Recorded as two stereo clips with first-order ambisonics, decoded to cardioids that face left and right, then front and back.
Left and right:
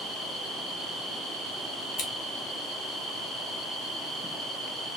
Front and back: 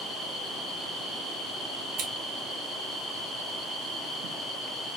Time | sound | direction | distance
2.0 | scissors | 130° left | 0.9 m